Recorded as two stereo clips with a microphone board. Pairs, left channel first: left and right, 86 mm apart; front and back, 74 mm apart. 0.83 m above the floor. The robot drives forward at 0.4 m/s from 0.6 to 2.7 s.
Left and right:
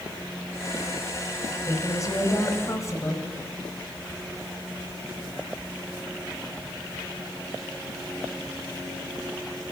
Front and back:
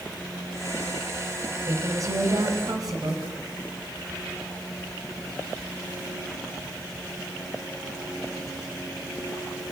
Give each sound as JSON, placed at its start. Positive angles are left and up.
{"t": 1.7, "sound": "a woman speaking", "azimuth_deg": 140, "distance_m": 4.0}